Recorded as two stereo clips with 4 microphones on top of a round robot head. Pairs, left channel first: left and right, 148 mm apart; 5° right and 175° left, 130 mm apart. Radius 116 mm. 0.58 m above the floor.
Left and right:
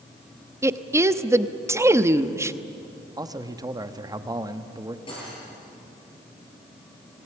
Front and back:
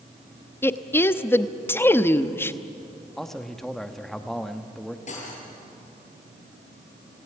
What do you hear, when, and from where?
0.6 s a woman speaking: 45° right, 0.9 m
3.2 s a man speaking: 85° right, 1.2 m
5.1 s cutlery clinking: 25° left, 8 m